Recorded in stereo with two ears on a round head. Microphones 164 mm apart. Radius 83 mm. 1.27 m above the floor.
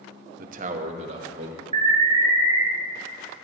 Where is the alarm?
35° right (ahead or behind), 2 m.